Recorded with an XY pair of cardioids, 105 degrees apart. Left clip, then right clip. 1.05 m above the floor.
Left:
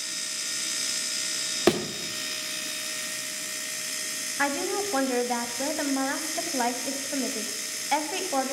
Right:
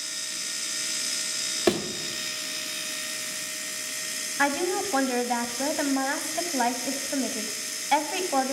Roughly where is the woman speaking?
Ahead.